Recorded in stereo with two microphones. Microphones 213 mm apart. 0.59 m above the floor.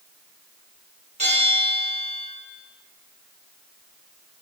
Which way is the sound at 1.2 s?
30° right (ahead or behind).